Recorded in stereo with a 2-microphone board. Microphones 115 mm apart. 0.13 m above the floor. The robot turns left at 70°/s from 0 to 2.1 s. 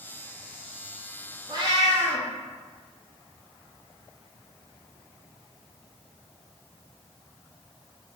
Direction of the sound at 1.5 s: 35° right.